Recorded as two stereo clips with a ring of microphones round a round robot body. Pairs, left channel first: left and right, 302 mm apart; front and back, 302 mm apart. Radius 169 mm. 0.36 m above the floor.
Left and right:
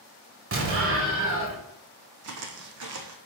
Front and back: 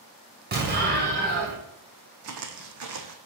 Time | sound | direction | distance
0.5 | an explosion | 125° right | 1.9 m
2.2 | footsteps | 135° right | 1.0 m